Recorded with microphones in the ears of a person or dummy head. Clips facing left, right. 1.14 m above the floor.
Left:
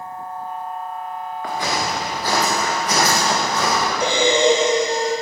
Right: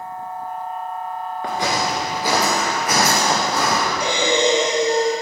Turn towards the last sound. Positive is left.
turn(degrees=30)  # may be behind; listen again after turning